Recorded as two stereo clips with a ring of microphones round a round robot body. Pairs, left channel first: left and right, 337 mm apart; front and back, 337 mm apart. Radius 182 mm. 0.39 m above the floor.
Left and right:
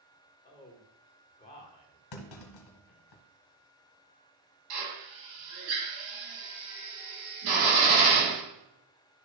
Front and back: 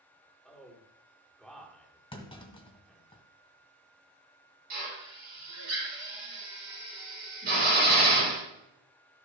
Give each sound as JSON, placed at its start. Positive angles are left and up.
{"t": 0.5, "sound": "a man speaking", "azimuth_deg": 85, "distance_m": 1.5}
{"t": 2.1, "sound": "a clunk", "azimuth_deg": 75, "distance_m": 1.5}
{"t": 4.7, "sound": "a drill", "azimuth_deg": -115, "distance_m": 3.0}